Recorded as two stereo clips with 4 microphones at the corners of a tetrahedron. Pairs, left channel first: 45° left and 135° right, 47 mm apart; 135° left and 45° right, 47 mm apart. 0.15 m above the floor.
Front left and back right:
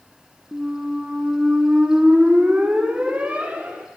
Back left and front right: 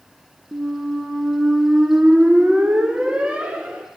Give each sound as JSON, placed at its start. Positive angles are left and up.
{"t": 0.5, "sound": "a squeak", "azimuth_deg": -95, "distance_m": 0.6}